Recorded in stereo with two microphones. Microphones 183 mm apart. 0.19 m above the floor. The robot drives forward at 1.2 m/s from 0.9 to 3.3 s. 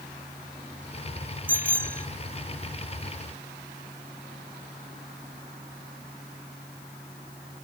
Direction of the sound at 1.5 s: 50° right (ahead or behind).